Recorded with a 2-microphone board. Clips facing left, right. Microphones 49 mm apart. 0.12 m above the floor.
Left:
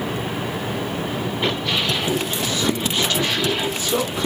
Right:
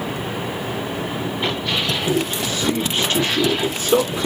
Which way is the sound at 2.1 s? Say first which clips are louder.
Right 2 dB; 20° right (ahead or behind).